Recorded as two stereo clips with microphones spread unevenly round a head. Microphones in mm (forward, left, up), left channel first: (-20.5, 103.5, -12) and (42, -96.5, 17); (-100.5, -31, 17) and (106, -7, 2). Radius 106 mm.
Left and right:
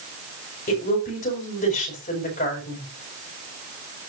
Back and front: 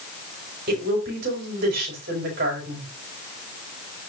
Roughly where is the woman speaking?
Ahead left.